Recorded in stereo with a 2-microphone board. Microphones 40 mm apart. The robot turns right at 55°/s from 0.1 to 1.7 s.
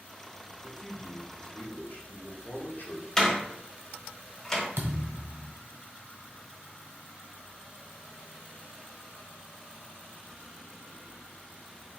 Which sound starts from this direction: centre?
A door slam, at 3.2 s.